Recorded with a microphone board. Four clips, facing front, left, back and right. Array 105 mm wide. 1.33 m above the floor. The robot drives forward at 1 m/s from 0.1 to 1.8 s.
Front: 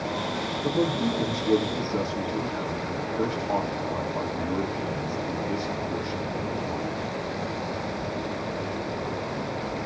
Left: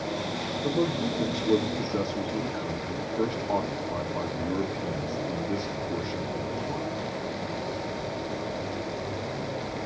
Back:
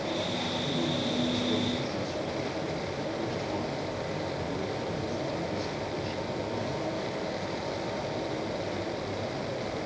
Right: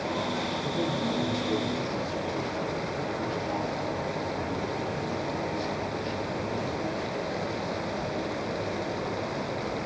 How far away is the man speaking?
About 3.5 m.